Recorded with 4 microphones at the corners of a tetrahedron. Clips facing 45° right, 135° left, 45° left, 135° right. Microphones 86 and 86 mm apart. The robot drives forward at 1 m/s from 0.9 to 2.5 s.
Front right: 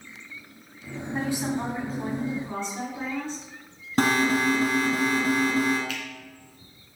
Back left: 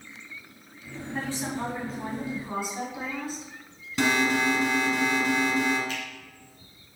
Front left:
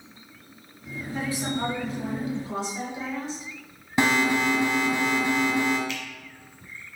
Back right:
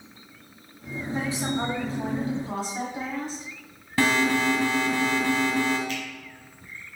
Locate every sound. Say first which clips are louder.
1.1 s a woman speaking: front right 4 dB, back right 1 dB; 90° right, 1.7 m; by 3.4 s 150° right, 2 m
4.0 s an alarm: front right 2 dB, even; 20° right, 1.2 m
5.9 s a finger snap: even, back right 2 dB; 175° right, 1.7 m